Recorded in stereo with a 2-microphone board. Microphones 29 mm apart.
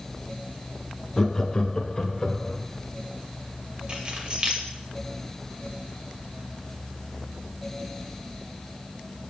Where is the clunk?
No clunk in this recording.